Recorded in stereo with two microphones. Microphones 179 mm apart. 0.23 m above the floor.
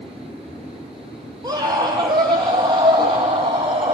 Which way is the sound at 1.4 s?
20° right (ahead or behind).